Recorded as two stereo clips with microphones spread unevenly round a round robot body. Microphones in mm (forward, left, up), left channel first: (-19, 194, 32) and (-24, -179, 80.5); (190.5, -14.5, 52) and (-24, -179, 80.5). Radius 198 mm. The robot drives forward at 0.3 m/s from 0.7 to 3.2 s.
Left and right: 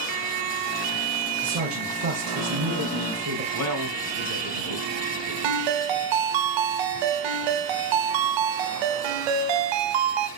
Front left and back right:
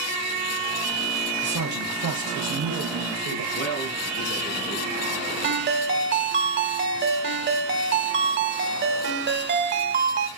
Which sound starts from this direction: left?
A man speaking, at 3.5 s.